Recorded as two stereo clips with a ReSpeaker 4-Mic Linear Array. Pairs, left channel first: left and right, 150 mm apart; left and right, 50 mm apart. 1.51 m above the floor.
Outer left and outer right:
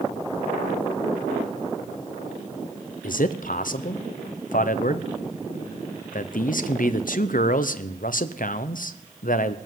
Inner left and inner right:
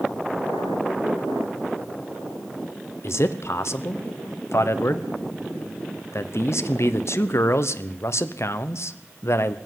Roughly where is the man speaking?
Left.